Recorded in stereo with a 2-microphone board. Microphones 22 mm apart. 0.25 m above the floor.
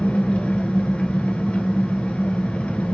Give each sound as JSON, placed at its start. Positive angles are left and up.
{"t": 0.0, "sound": "an engine running", "side_deg": 70, "distance_m": 0.9}